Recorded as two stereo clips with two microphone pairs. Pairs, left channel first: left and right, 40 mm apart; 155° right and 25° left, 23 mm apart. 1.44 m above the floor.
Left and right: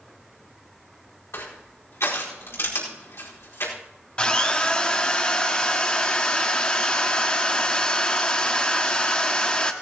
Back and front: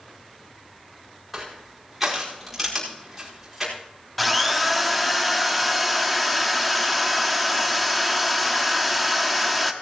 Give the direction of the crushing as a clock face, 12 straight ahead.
9 o'clock.